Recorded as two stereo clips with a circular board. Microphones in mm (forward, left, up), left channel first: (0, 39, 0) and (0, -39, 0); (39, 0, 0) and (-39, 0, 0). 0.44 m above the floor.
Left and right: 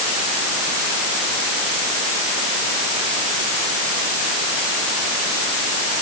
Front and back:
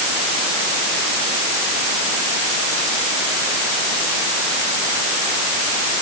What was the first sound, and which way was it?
Only background noise.